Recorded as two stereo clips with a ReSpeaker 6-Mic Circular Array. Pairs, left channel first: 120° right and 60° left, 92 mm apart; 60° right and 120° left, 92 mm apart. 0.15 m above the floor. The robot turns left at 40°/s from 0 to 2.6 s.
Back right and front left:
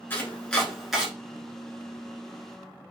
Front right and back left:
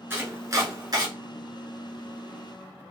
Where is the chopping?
Straight behind, 1.3 m; by 1.1 s 140° left, 1.3 m.